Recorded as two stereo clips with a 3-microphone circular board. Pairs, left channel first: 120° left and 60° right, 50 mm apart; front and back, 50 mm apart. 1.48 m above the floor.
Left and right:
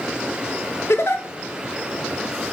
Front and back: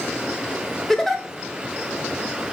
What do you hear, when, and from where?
0.9 s a giggle: 85° left, 0.5 m